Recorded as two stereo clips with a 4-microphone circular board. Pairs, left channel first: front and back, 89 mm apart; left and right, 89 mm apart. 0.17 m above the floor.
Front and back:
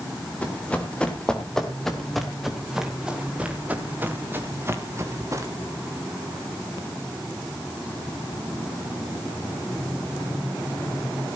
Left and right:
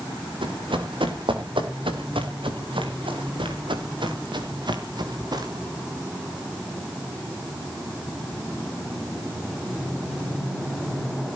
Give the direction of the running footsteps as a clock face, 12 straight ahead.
2 o'clock.